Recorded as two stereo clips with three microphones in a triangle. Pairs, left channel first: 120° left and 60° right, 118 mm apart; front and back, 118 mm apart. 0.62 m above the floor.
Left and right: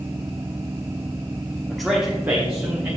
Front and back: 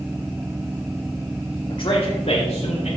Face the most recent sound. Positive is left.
turn(degrees=5)